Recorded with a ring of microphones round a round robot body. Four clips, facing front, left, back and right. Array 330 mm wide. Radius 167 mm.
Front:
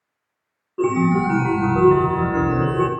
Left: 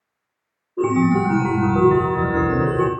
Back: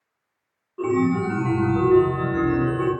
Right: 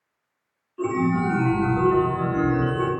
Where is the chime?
60° left, 0.9 m.